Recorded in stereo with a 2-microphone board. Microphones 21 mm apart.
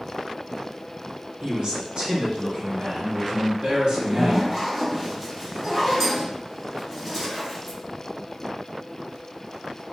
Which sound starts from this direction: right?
A man speaking, at 1.4 s.